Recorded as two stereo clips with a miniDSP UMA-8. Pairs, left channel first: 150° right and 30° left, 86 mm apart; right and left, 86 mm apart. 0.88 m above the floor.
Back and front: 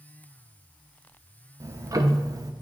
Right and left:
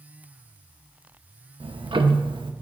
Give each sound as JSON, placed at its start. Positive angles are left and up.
{"t": 1.6, "sound": "ticking", "azimuth_deg": 80, "distance_m": 0.6}